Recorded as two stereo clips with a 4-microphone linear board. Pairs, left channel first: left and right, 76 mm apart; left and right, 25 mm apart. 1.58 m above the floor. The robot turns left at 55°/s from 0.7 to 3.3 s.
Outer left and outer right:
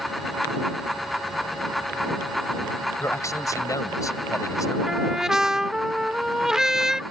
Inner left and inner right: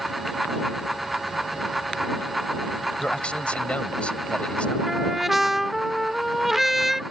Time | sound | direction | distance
3.0 | a man speaking | 30° left (ahead or behind) | ?
4.9 | a trumpet | 5° right (ahead or behind) | ?